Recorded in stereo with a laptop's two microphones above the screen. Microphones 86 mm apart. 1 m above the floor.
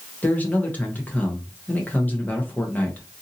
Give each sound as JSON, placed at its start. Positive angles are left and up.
{"t": 0.2, "sound": "a man speaking", "side_deg": 20, "distance_m": 0.8}